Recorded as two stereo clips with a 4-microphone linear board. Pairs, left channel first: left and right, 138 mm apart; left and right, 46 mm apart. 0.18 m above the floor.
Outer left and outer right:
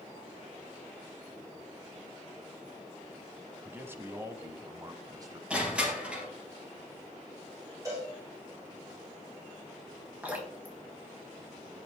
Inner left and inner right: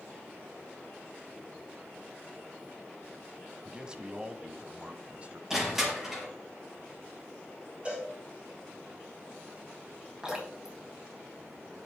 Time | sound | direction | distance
3.6 | a man speaking | 15° right (ahead or behind) | 1.2 m
5.5 | crushing | 10° right (ahead or behind) | 4 m
7.8 | a cowbell | 25° right (ahead or behind) | 6 m
10.2 | dripping | 10° right (ahead or behind) | 3.5 m